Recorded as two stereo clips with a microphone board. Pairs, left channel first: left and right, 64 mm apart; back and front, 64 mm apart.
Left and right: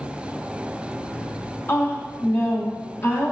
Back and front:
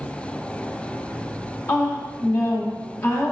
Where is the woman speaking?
145° left, 1.4 m.